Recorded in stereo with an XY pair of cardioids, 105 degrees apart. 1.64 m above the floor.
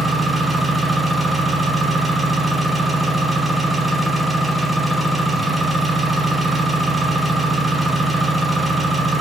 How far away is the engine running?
About 1.0 m.